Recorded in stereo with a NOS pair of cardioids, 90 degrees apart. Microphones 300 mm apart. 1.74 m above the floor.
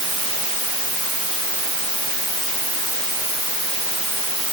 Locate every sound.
Only background noise.